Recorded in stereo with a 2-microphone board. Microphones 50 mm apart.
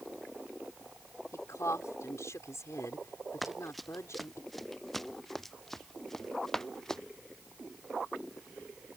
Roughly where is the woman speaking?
Left.